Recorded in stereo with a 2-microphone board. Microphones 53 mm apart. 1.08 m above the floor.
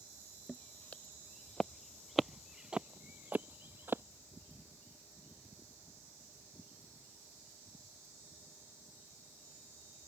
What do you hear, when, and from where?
0.5 s footsteps: 30° left (ahead or behind); by 4.0 s 45° right (ahead or behind)